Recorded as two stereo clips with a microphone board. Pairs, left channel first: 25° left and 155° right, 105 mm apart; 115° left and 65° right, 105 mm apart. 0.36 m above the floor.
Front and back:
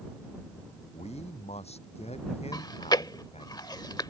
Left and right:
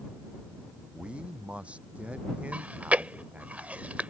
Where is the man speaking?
10° left.